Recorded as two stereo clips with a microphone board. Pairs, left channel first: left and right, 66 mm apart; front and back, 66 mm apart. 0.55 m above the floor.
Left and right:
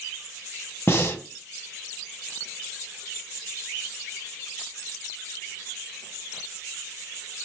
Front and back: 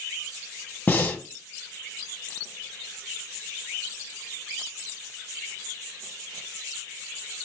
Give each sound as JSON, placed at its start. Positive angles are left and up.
{"t": 0.9, "sound": "breathing", "azimuth_deg": 50, "distance_m": 0.5}